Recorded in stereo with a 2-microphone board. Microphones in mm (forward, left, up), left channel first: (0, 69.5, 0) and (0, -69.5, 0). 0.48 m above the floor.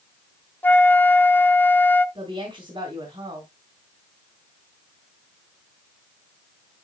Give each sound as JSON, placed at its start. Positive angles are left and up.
{"t": 0.6, "sound": "a flute", "side_deg": 15, "distance_m": 0.6}
{"t": 2.1, "sound": "a woman speaking", "side_deg": -40, "distance_m": 3.0}